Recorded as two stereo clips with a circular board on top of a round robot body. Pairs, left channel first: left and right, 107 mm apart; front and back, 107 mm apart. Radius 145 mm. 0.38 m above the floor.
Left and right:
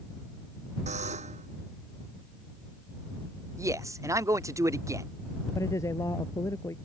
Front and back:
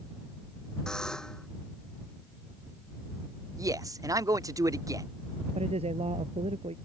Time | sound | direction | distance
0.9 | a buzzer | 85° right | ?
3.6 | a man speaking | 140° right | ?
5.5 | a man speaking | 155° left | ?